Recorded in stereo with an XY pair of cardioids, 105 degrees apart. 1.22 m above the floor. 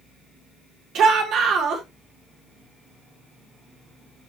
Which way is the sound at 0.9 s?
65° right.